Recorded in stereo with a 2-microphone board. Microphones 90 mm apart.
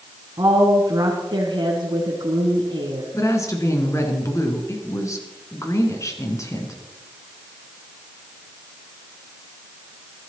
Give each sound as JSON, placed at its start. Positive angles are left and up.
{"t": 0.4, "sound": "a woman speaking", "side_deg": -50, "distance_m": 1.9}
{"t": 3.1, "sound": "a woman speaking", "side_deg": 35, "distance_m": 2.5}